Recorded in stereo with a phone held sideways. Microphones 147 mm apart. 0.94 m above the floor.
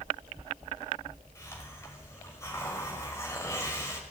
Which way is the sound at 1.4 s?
20° left (ahead or behind).